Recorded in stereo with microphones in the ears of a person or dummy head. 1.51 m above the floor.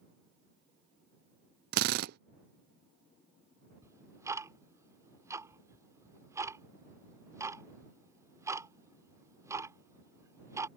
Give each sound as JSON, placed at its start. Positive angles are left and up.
{"t": 1.7, "sound": "a drill", "side_deg": -60}
{"t": 3.8, "sound": "ticking", "side_deg": -20}